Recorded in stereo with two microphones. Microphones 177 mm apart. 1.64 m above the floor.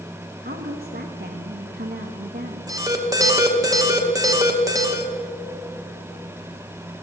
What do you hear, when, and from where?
0.4 s a woman speaking: 65° right (ahead or behind), 1.8 m
2.7 s an alarm: 20° right (ahead or behind), 2.5 m